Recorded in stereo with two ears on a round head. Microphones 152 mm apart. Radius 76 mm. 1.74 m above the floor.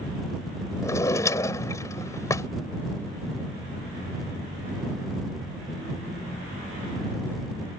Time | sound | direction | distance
0.8 | a drawer | 20° left (ahead or behind) | ?